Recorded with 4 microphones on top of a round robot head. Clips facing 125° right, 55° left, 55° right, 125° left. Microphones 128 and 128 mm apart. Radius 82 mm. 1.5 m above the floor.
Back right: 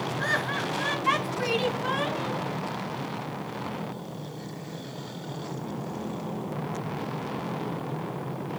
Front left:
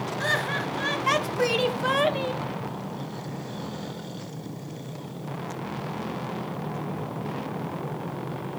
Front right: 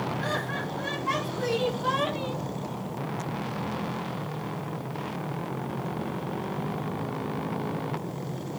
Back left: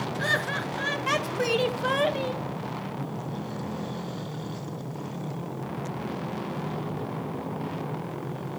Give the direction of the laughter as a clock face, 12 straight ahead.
8 o'clock.